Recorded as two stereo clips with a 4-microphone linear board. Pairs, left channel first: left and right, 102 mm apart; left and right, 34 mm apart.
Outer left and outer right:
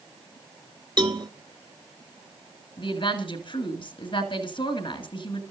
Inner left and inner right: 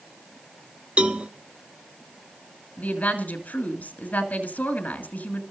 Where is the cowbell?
45° right (ahead or behind), 0.7 m.